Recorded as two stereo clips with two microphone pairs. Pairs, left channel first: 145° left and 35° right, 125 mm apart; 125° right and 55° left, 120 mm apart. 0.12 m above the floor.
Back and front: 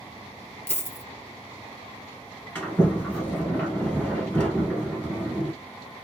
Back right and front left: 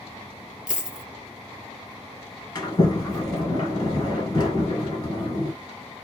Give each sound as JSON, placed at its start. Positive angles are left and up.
{"t": 0.7, "sound": "a dropped coin", "azimuth_deg": 135, "distance_m": 0.7}
{"t": 2.5, "sound": "a sliding door", "azimuth_deg": -145, "distance_m": 1.4}